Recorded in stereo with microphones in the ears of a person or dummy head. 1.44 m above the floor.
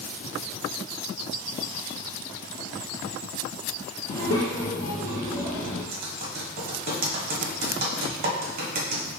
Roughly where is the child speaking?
Left.